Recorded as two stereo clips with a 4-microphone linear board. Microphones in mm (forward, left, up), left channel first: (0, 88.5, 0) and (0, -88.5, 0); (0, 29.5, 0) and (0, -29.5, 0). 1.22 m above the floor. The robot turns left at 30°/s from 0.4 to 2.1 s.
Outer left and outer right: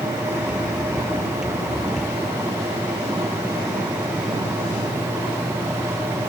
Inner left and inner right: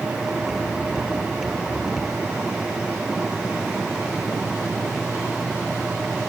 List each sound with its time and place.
Only background noise.